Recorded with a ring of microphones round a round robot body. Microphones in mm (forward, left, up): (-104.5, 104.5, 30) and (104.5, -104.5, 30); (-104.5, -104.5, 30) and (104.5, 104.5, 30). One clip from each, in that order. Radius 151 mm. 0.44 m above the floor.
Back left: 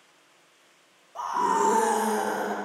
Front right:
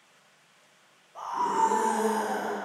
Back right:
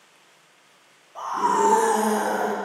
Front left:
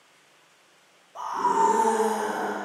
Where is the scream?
110° left, 0.7 m; by 2.5 s straight behind, 1.4 m.